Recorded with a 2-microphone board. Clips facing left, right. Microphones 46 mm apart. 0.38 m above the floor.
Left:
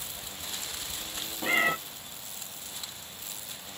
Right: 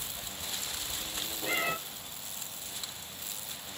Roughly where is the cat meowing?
Left.